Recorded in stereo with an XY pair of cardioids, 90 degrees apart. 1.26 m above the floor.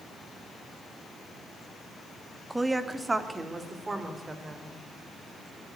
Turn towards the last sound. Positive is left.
turn(degrees=-30)